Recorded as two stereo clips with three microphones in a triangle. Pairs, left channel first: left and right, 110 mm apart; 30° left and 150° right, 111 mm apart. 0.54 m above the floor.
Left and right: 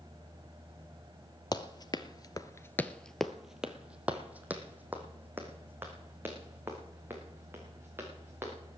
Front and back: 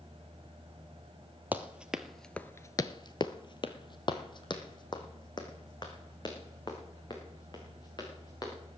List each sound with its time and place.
1.5 s running footsteps: 135° left, 1.0 m; by 8.5 s 20° right, 4.5 m